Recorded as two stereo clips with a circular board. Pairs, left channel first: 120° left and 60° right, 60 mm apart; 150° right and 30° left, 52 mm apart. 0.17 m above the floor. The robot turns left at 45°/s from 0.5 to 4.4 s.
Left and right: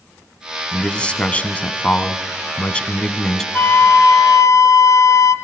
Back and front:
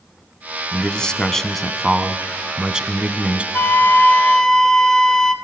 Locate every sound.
0.7 s a man speaking: 175° left, 1.1 m; by 3.4 s 50° left, 1.1 m
3.5 s a flute: 170° left, 1.1 m; by 5.3 s 135° left, 1.1 m